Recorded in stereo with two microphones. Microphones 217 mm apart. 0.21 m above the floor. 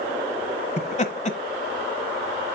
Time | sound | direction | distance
0.8 | laughter | 35° left (ahead or behind) | 1.1 m